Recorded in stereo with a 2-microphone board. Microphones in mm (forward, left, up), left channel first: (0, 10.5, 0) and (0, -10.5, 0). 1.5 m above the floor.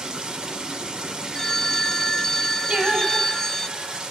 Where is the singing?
75° right (ahead or behind), 7.5 m.